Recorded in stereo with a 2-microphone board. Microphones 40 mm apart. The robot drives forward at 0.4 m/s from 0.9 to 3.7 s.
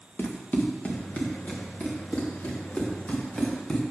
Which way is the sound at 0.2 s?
45° left (ahead or behind).